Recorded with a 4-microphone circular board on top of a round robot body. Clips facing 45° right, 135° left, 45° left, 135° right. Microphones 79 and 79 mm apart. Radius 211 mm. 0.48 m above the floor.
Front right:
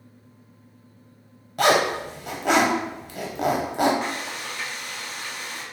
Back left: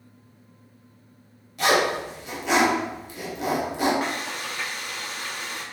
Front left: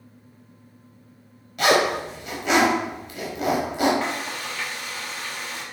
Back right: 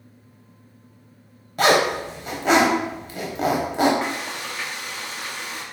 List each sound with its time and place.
1.6 s a zipper: 85° right, 0.5 m
4.0 s frying: 160° left, 1.5 m